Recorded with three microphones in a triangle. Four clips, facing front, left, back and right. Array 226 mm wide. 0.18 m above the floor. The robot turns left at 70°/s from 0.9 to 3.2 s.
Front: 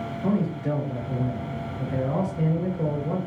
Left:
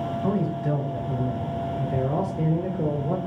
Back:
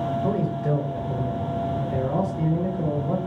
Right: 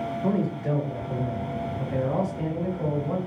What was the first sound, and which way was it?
A man speaking, 45° right.